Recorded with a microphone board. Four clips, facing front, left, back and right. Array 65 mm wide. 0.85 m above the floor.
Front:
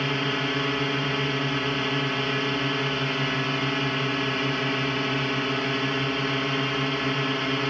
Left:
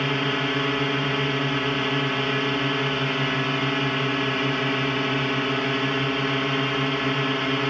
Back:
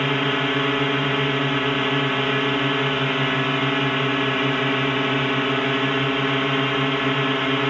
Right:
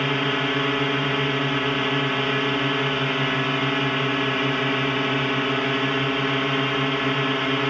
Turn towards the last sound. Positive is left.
turn(degrees=-160)